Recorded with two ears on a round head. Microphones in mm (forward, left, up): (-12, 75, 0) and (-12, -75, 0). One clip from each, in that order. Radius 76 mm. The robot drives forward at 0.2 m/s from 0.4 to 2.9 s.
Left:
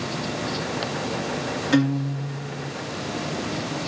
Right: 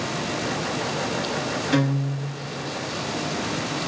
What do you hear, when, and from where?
1.7 s a guitar: 15° left (ahead or behind), 0.8 m; by 2.7 s 10° left (ahead or behind), 1.0 m